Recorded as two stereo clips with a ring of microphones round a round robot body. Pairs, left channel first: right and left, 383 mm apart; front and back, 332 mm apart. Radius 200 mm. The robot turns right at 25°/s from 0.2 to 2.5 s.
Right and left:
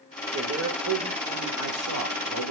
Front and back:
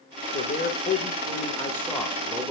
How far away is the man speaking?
About 1.5 m.